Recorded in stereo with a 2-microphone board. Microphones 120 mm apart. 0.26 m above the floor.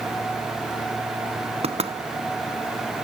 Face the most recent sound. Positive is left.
turn(degrees=-55)  # may be behind; listen again after turning